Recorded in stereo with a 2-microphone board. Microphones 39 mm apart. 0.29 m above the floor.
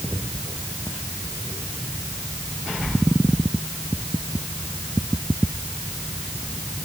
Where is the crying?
I don't hear crying.